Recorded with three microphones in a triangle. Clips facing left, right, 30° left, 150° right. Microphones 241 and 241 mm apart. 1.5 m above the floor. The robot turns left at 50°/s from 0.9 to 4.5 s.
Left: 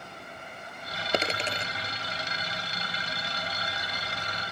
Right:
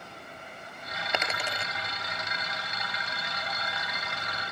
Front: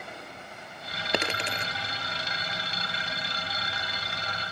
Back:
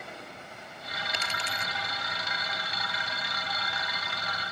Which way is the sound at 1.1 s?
40° left.